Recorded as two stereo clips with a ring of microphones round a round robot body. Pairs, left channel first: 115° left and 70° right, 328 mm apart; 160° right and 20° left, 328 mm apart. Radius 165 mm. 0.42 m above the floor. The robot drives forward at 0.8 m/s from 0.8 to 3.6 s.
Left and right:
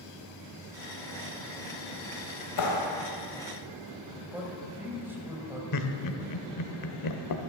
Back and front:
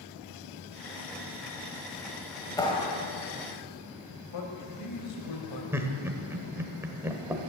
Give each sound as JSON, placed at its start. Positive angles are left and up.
{"t": 2.6, "sound": "a clap", "azimuth_deg": 125, "distance_m": 2.0}
{"t": 4.3, "sound": "a man speaking", "azimuth_deg": -150, "distance_m": 2.5}
{"t": 5.7, "sound": "laughter", "azimuth_deg": 105, "distance_m": 1.3}